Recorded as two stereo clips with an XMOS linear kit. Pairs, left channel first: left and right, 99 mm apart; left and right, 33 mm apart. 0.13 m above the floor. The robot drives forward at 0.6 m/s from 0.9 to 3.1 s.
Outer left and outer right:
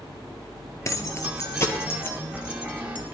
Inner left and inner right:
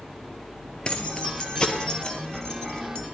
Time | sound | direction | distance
0.8 | keys jangling | 35° left (ahead or behind) | 1.9 m